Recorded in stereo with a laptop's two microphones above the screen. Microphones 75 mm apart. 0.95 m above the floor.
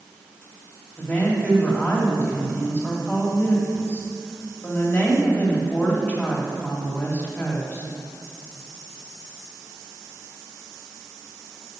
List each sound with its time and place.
1.0 s a woman speaking: 25° left (ahead or behind), 2.5 m